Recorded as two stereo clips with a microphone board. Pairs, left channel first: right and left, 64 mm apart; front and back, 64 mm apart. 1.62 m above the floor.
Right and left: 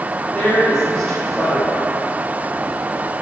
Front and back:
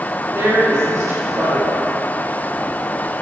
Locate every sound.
0.3 s a woman speaking: 175° right, 3.5 m